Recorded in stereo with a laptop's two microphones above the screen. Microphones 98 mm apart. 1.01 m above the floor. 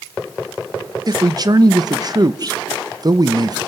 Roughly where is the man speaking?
Right.